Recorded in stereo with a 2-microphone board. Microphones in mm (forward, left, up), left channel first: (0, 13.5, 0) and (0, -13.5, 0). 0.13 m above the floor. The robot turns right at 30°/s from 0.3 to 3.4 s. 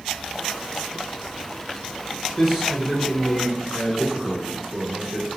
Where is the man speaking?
170° right, 1.6 m; by 5.3 s 140° right, 1.6 m.